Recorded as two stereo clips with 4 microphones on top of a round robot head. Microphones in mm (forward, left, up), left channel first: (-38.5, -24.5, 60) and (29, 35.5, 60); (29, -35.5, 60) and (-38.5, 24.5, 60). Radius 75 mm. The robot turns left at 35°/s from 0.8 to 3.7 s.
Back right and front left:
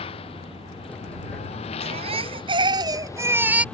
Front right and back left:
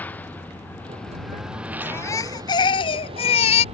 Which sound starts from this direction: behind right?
A lawn mower, at 0.0 s.